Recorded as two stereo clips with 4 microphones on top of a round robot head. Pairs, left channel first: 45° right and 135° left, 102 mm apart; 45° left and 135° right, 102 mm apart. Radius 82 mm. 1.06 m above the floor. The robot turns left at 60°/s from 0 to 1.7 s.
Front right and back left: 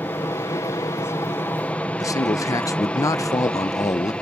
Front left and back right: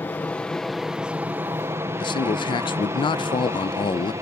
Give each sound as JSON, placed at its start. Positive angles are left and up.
{"t": 0.0, "sound": "an aircraft", "azimuth_deg": 0}
{"t": 2.0, "sound": "a man speaking", "azimuth_deg": 10}